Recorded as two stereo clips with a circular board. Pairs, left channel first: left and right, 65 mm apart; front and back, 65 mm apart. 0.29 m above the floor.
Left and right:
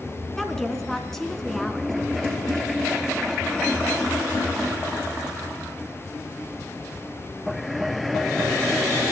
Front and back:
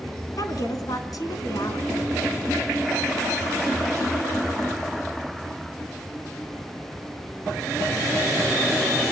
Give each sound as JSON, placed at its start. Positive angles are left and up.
{"t": 0.4, "sound": "a woman speaking", "azimuth_deg": 5, "distance_m": 3.0}